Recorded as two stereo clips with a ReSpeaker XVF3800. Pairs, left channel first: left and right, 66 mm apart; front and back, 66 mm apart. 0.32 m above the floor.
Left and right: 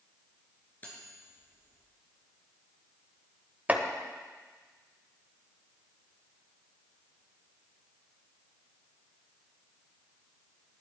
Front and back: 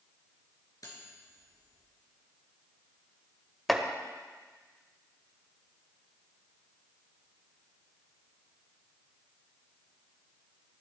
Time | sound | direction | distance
0.8 | cutlery clinking | 25° left | 3.5 m
3.7 | chopping | 85° right | 1.2 m